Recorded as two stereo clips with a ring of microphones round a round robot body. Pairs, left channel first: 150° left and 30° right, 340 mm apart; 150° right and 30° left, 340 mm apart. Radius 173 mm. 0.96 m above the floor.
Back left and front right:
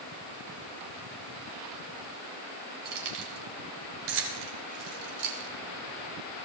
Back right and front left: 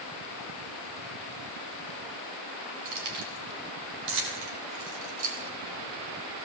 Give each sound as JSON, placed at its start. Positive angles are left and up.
{"t": 2.9, "sound": "keys jangling", "azimuth_deg": 0, "distance_m": 3.5}